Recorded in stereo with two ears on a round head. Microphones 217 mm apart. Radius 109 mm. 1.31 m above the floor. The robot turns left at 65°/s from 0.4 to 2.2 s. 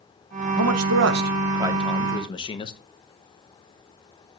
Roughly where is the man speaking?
Right.